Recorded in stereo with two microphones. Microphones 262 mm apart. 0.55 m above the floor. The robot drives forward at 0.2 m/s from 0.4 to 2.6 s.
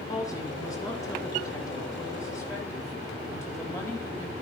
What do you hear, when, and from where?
0.1 s a woman speaking: 15° left (ahead or behind), 2.5 m; by 4.3 s 10° left (ahead or behind), 3 m